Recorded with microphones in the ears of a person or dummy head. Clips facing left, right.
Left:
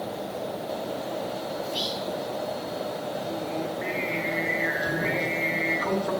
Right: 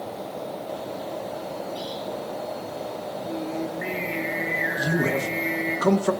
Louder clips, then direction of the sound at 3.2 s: Right 4 dB; 15° right (ahead or behind).